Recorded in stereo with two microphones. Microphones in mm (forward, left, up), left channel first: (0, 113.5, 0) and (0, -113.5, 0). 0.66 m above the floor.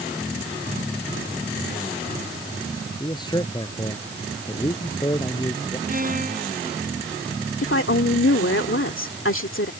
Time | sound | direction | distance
3.0 | a man speaking | 20° left (ahead or behind) | ?
5.9 | a violin | 40° right (ahead or behind) | ?
7.6 | a woman speaking | 65° left (ahead or behind) | ?